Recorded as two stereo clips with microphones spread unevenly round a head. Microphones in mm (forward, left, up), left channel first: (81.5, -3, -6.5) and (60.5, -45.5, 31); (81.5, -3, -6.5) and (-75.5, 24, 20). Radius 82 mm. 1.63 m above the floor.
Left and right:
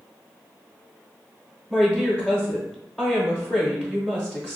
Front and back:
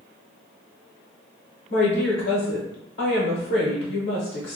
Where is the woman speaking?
30° right, 0.8 m.